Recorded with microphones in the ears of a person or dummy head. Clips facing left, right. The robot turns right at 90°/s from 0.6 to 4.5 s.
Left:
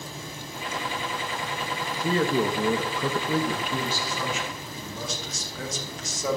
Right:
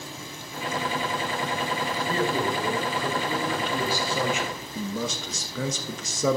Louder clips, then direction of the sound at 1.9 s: Left 4 dB; 15° left.